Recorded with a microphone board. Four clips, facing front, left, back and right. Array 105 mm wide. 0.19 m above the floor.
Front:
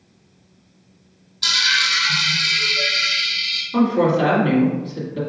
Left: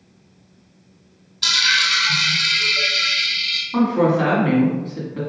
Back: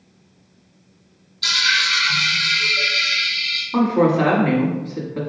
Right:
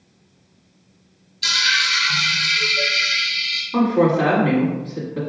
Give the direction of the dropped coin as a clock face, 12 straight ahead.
9 o'clock.